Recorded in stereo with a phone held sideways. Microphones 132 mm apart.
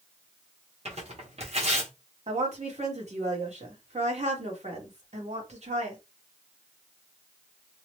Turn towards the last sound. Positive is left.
turn(degrees=-55)  # may be behind; listen again after turning